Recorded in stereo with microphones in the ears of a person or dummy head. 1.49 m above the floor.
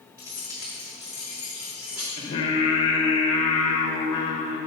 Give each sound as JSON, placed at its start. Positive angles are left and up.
{"t": 0.2, "sound": "keys jangling", "side_deg": -25, "distance_m": 1.9}
{"t": 2.2, "sound": "singing", "side_deg": 25, "distance_m": 1.1}